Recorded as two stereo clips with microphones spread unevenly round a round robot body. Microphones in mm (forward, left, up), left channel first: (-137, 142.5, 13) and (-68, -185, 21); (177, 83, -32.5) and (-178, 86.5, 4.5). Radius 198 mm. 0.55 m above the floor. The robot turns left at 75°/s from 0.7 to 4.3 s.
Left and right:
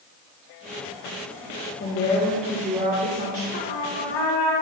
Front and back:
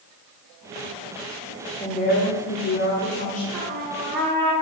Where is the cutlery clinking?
No cutlery clinking in this recording.